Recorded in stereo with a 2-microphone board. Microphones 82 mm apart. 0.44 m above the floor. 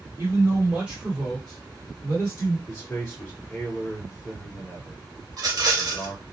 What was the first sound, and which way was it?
A man speaking, 35° right (ahead or behind).